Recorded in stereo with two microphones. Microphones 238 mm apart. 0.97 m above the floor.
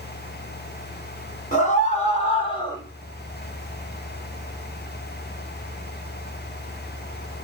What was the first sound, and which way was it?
A scream, 35° left (ahead or behind).